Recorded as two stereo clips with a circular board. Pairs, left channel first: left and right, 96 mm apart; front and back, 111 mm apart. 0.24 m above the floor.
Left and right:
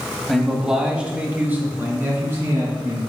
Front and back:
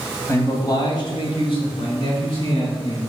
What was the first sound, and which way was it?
A man speaking, 5° left.